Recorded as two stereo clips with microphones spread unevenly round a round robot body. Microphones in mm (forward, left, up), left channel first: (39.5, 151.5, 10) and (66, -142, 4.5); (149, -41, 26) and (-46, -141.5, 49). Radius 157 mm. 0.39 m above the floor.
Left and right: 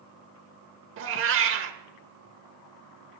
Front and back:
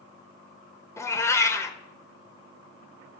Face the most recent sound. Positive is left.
turn(degrees=-45)